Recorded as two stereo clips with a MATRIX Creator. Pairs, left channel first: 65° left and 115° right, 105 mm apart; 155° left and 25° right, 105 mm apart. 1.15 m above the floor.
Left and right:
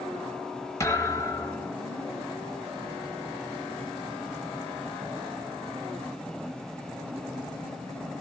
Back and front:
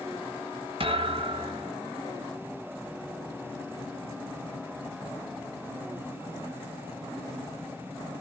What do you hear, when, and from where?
0.8 s a thud: 5° left, 4 m